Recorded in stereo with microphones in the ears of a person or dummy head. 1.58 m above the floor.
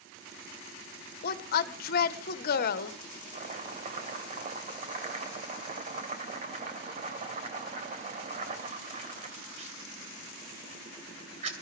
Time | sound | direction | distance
1.2 | a woman speaking | 55° left (ahead or behind) | 1.2 m
3.3 | chopping | 40° right (ahead or behind) | 2.5 m